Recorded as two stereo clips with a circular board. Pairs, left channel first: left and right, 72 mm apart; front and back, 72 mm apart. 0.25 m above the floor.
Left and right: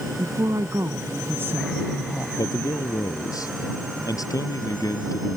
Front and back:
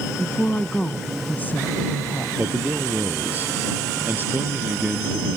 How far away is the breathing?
I don't hear breathing.